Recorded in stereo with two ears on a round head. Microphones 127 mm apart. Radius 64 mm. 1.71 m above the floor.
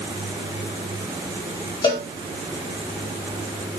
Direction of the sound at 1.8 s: 35° left (ahead or behind).